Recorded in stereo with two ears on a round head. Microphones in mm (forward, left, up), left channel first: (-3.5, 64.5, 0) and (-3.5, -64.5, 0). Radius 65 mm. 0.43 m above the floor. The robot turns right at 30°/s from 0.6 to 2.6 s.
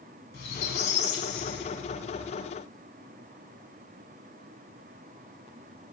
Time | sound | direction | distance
0.3 | a squeak | 70° left | 1.4 m